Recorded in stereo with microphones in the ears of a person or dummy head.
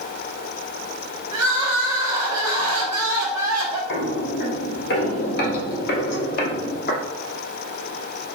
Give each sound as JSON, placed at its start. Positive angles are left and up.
{"t": 1.3, "sound": "crying", "side_deg": -20, "distance_m": 2.5}
{"t": 3.9, "sound": "footsteps", "side_deg": 55, "distance_m": 2.5}